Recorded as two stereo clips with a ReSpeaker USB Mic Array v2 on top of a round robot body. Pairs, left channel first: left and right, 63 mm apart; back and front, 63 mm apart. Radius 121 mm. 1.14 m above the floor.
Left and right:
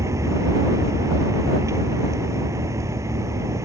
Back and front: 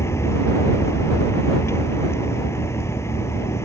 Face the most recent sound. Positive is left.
turn(degrees=-130)